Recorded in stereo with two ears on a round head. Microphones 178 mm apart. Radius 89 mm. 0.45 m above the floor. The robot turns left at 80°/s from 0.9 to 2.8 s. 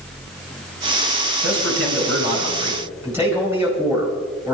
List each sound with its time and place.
1.4 s a man speaking: 55° right, 5 m; by 4.5 s 165° right, 5 m